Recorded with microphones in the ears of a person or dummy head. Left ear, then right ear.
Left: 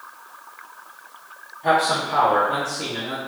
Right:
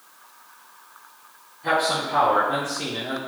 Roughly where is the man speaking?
Left.